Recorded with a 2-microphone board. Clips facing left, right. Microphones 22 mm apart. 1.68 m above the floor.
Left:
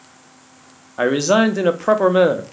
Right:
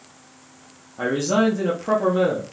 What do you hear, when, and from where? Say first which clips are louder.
1.0 s a man speaking: left 5 dB; 65° left (ahead or behind), 0.5 m